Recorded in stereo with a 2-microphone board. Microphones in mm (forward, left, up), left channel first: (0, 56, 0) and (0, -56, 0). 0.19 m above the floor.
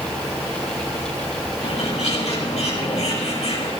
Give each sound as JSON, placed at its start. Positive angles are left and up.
{"t": 1.6, "sound": "a bird", "side_deg": 75, "distance_m": 5.0}